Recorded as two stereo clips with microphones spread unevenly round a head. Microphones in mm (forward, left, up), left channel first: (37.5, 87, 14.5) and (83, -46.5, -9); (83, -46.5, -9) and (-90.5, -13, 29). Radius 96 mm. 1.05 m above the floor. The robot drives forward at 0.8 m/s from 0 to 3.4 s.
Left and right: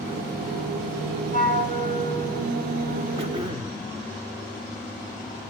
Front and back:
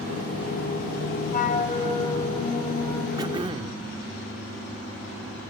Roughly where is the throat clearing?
Behind right.